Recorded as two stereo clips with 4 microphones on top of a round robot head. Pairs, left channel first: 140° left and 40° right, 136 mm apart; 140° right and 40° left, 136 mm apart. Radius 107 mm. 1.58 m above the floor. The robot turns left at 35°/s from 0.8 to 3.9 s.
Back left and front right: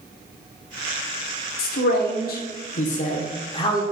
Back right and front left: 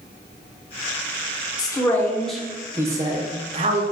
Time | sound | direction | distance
1.6 | a man speaking | 155° left | 1.0 m